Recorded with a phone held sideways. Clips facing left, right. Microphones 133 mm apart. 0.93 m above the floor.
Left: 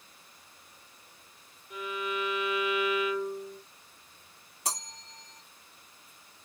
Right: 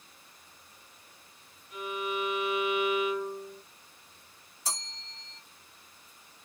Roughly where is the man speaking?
I don't hear a man speaking.